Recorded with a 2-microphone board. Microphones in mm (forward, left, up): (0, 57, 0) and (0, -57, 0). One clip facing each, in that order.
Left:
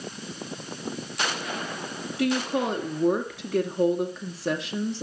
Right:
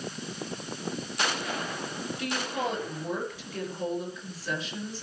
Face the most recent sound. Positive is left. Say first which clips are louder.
# left 8 dB
turn(degrees=70)  # may be behind; listen again after turning